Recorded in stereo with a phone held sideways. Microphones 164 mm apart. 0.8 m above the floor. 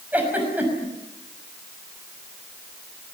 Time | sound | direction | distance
0.1 | a giggle | 10° right (ahead or behind) | 6 m